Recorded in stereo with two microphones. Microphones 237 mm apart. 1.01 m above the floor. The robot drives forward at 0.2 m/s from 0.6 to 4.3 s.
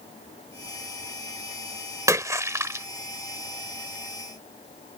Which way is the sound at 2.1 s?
15° right (ahead or behind).